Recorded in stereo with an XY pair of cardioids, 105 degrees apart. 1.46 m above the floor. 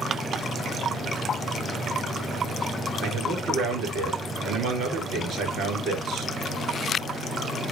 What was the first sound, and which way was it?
A man speaking, 70° right.